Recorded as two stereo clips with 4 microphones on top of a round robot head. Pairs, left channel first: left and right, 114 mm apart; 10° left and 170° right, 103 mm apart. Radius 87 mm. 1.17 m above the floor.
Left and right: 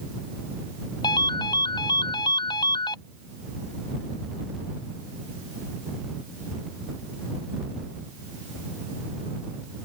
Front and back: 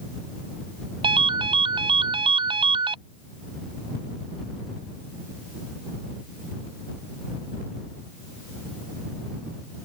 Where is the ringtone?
155° left.